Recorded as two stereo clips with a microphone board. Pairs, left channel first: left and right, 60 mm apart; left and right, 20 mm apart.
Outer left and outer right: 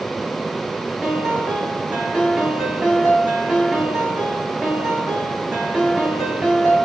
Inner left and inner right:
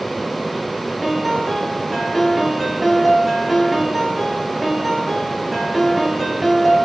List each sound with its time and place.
1.0 s a piano: 10° right (ahead or behind), 1.1 m